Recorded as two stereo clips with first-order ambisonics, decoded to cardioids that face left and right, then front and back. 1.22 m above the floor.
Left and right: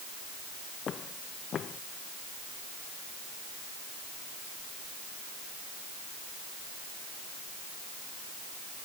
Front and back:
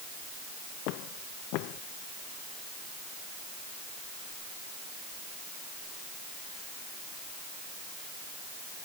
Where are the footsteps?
25° left.